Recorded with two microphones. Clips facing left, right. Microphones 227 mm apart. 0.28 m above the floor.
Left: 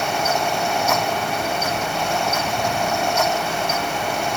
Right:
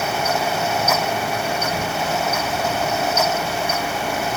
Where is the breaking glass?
No breaking glass in this recording.